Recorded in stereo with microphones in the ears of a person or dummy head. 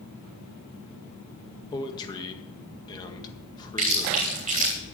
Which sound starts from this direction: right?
Chewing, at 3.8 s.